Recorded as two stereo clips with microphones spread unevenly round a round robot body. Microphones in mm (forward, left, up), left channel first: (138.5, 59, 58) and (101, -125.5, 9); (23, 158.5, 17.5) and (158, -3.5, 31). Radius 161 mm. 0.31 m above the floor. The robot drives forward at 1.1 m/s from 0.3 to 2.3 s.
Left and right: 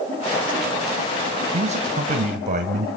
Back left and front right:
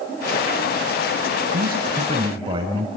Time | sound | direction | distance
1.5 | a man speaking | 85° right | 1.7 m